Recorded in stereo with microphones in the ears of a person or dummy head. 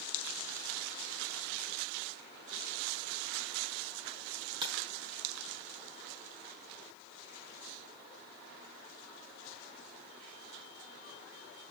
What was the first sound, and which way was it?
Breaking glass, 25° right (ahead or behind).